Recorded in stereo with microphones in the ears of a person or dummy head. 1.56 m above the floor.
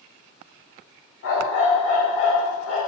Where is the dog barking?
65° left (ahead or behind), 3 m.